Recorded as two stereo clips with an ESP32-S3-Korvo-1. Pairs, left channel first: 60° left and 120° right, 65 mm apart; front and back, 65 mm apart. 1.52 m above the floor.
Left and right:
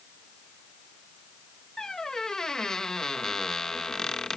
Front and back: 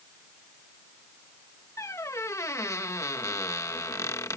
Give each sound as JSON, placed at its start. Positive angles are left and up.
{"t": 1.8, "sound": "a squeak", "azimuth_deg": -20}